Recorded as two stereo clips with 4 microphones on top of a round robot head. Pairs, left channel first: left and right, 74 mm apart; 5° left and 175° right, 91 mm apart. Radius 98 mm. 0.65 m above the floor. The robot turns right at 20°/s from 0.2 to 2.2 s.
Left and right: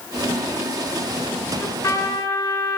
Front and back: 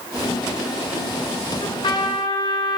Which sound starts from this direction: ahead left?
A trumpet, at 1.6 s.